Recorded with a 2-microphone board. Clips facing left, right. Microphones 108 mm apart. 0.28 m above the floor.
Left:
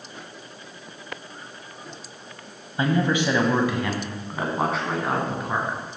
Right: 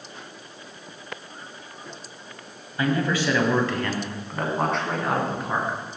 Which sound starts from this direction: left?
A man speaking, at 2.8 s.